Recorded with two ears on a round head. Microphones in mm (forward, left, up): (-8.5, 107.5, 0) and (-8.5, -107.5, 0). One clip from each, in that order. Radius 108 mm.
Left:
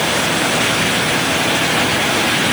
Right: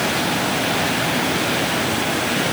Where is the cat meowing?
No cat meowing in this recording.